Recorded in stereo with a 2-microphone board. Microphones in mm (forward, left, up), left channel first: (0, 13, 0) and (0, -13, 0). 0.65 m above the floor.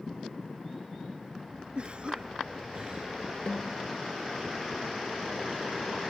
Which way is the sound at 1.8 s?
40° right (ahead or behind).